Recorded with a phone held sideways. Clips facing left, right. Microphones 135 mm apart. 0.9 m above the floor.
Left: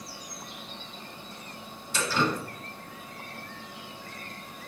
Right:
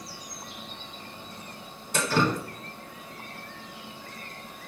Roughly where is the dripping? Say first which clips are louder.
Right 3 dB; right.